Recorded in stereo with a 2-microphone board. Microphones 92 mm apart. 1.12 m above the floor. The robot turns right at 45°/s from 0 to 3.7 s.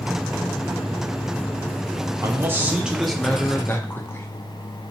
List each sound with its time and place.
2.2 s a man speaking: 40° right, 0.9 m; by 4.3 s 25° left, 0.9 m